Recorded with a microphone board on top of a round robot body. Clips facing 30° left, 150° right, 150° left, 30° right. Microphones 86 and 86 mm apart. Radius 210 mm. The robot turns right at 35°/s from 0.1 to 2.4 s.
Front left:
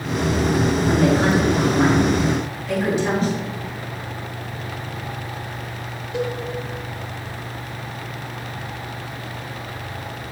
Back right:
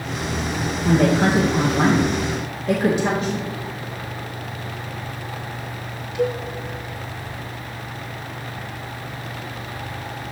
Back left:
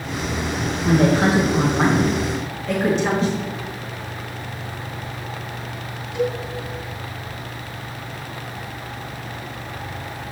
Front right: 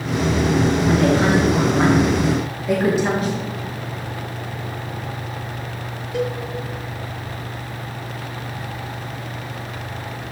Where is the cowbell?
Straight ahead, 4 m.